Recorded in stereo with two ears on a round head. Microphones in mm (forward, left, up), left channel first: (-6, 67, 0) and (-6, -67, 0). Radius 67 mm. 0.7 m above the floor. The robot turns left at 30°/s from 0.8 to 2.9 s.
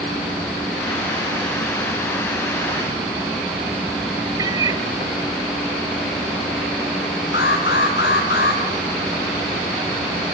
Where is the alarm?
85° left, 5 m.